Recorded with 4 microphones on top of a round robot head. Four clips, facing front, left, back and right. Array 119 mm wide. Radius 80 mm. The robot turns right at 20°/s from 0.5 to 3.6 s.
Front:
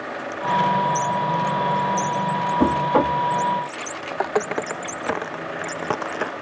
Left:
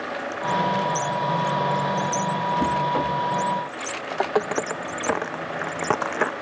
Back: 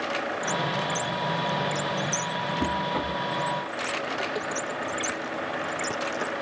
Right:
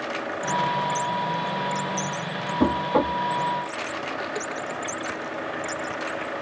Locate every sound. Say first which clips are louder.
2.6 s knocking: right 5 dB, front 11 dB; 30° right; by 3.2 s 20° right
4.1 s footsteps: left 7 dB, front 7 dB; 40° left; by 6.3 s 70° left